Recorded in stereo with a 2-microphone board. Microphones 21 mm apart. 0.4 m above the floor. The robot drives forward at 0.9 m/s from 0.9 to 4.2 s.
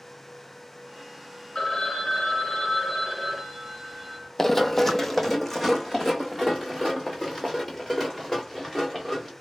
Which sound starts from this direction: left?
A phone ringing, at 1.6 s.